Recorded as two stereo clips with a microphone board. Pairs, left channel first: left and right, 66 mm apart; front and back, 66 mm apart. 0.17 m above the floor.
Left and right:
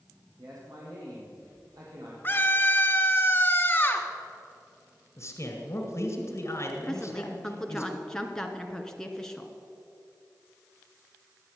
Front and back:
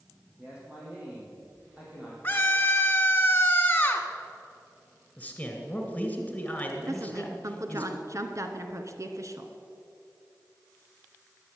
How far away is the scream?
About 1.2 m.